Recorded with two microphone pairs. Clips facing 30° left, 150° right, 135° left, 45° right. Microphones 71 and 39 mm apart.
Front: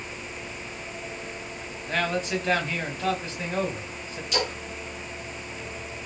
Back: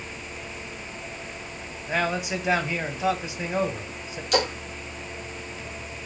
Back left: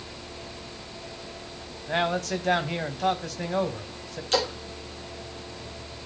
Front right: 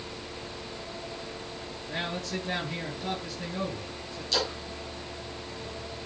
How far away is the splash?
About 5.5 m.